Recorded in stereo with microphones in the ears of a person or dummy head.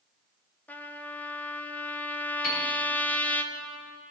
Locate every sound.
0.7 s a trumpet: 5° left (ahead or behind), 0.5 m
2.4 s a piano: 70° left (ahead or behind), 2 m